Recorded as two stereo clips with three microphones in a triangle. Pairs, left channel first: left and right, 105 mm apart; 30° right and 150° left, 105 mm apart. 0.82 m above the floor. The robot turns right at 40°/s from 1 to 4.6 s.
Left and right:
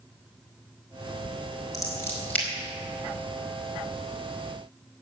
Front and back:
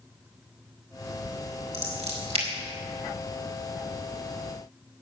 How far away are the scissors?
About 4.5 m.